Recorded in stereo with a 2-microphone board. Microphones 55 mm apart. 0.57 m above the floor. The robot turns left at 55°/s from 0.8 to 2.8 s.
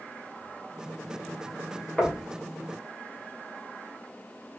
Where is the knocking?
20° left (ahead or behind), 1.0 m; by 2.2 s 10° left (ahead or behind), 1.0 m.